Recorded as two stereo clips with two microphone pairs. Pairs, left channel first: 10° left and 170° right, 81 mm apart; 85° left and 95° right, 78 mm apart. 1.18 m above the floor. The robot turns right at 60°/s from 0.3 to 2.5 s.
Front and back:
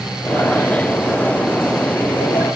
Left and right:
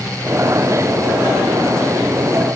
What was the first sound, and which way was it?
Only background noise.